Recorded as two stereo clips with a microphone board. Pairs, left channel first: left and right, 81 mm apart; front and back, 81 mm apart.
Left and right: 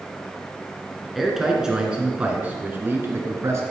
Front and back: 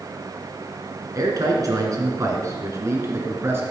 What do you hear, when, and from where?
1.1 s a man speaking: straight behind, 2 m; by 3.6 s 130° right, 2.5 m